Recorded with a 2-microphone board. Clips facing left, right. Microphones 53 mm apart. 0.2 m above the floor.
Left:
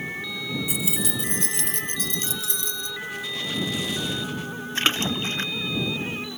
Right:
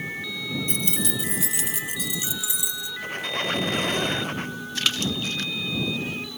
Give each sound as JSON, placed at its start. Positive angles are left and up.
{"t": 0.7, "sound": "keys jangling", "side_deg": 10}
{"t": 3.0, "sound": "a squeak", "side_deg": -50}
{"t": 4.8, "sound": "a splash", "side_deg": 30}